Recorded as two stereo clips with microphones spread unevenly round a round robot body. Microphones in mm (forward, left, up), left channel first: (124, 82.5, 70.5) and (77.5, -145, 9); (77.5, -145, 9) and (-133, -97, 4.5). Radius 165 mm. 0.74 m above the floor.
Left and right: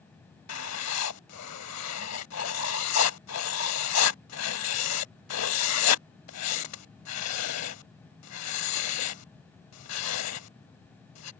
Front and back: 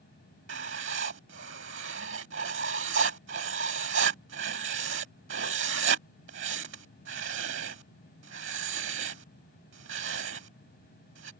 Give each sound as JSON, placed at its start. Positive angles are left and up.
{"t": 0.5, "sound": "writing", "azimuth_deg": 110}